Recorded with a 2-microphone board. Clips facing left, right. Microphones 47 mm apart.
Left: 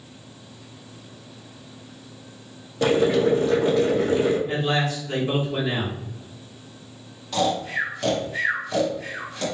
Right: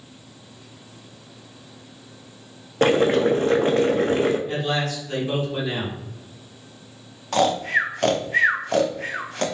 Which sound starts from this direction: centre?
A man speaking, at 4.5 s.